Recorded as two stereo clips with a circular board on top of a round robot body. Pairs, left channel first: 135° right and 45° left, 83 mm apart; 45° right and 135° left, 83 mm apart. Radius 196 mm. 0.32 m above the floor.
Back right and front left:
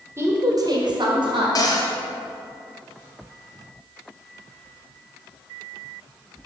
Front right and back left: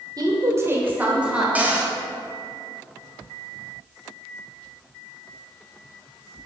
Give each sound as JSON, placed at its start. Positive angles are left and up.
{"t": 0.2, "sound": "a woman speaking", "azimuth_deg": 100, "distance_m": 1.8}
{"t": 1.6, "sound": "a cupboard door", "azimuth_deg": -155, "distance_m": 1.6}